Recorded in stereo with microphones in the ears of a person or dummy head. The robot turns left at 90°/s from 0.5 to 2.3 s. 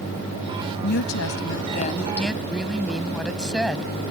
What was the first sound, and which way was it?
A woman speaking, 135° left.